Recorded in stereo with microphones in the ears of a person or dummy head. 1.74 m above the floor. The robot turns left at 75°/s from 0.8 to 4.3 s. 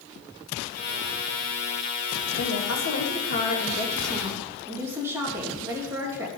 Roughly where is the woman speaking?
Behind left.